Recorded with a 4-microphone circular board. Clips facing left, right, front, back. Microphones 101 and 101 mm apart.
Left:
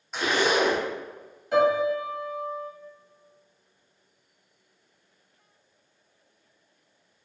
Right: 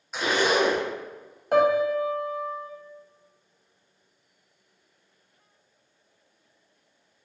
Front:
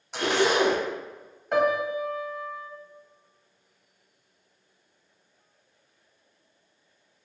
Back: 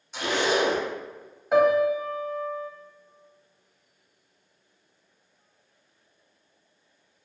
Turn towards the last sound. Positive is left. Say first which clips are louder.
# right 1 dB, back 4 dB
turn(degrees=-95)